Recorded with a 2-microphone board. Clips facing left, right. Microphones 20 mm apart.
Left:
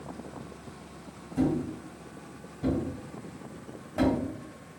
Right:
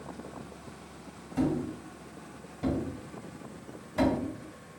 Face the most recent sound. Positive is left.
turn(degrees=-40)  # may be behind; listen again after turning